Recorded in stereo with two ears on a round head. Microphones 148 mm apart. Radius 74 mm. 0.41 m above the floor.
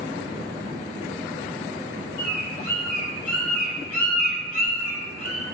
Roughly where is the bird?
Left.